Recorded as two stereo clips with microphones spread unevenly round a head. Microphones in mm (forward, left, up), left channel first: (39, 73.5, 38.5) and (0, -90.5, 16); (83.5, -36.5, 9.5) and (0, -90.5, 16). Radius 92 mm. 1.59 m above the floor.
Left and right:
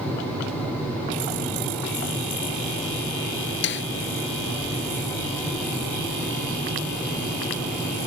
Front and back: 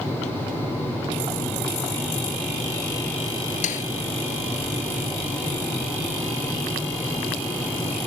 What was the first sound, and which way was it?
A snare drum, 55° left.